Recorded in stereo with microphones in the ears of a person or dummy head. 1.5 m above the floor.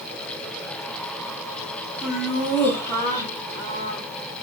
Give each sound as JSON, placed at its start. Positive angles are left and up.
{"t": 2.0, "sound": "laughter", "side_deg": 0, "distance_m": 1.9}